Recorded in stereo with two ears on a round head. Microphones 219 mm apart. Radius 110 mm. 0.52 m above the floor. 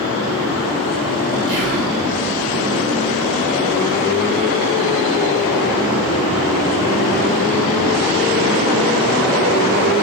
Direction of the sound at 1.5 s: 50° right (ahead or behind).